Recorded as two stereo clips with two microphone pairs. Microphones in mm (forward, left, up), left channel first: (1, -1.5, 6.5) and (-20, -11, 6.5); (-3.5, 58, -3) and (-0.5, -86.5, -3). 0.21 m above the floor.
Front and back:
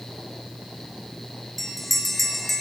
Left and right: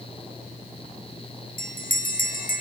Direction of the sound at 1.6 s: 110° left.